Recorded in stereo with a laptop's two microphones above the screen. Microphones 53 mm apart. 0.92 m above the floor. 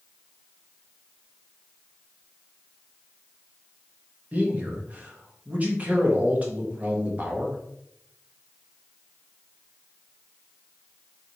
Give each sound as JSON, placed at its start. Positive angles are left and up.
{"t": 4.3, "sound": "a man speaking", "side_deg": -30, "distance_m": 0.8}